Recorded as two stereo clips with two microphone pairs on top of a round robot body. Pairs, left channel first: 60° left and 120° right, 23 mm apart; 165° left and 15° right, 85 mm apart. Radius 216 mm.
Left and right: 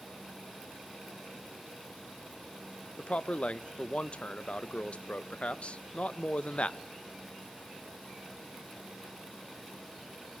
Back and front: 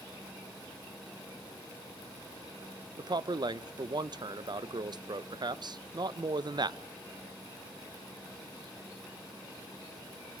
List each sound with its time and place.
3.0 s a man speaking: 15° left, 0.7 m